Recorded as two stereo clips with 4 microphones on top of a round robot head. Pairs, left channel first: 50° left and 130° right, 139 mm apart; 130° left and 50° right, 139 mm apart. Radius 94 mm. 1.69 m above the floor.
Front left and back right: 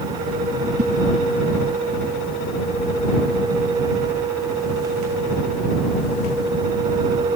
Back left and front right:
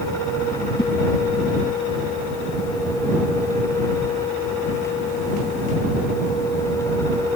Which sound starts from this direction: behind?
A whoosh, at 0.8 s.